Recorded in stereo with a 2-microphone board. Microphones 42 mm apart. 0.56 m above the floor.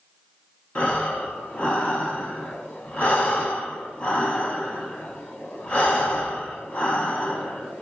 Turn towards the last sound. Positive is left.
turn(degrees=35)  # may be behind; listen again after turning